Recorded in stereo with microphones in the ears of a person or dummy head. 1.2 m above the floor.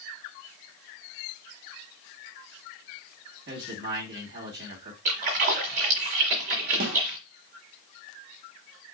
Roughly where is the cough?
No cough in this recording.